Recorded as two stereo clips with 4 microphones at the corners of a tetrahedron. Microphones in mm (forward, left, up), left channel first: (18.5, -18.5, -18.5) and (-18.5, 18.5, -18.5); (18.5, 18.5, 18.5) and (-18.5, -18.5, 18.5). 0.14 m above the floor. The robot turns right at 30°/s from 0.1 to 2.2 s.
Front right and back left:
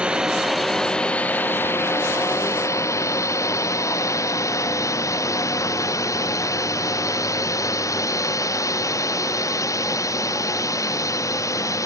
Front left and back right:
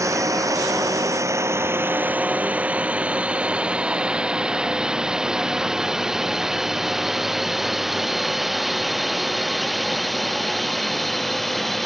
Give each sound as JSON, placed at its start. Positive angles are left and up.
{"t": 0.0, "sound": "a drone", "azimuth_deg": -155}